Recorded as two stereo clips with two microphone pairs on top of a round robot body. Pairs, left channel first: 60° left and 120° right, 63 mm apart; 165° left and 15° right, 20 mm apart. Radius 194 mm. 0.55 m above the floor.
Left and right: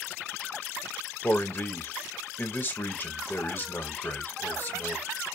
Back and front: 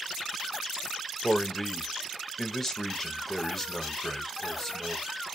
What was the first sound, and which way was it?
A man speaking, 95° left.